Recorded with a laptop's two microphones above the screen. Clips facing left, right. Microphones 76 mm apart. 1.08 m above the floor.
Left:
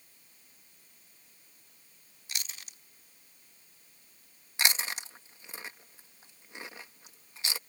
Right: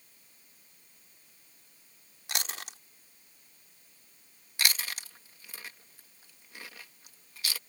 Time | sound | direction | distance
2.3 | chewing | 80° right | ?
4.6 | chewing | 25° left (ahead or behind) | ?